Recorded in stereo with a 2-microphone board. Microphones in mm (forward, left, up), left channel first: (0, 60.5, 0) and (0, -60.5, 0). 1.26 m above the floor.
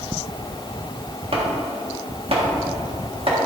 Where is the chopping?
55° right (ahead or behind), 1.7 m.